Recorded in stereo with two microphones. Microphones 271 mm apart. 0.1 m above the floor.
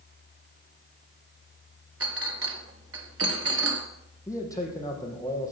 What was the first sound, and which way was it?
A clink, 55° right (ahead or behind).